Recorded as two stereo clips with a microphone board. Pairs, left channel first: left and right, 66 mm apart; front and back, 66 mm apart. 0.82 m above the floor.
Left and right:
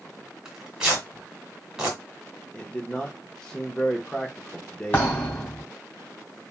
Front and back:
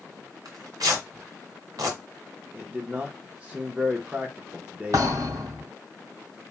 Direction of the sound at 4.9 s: 155° left.